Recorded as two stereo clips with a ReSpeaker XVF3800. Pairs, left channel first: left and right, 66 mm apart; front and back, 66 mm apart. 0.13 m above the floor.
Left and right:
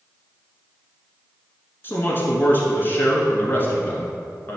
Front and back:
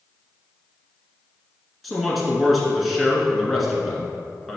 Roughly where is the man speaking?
Left.